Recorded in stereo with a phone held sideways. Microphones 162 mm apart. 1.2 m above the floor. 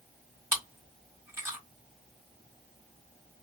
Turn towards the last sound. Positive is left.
turn(degrees=-15)  # may be behind; listen again after turning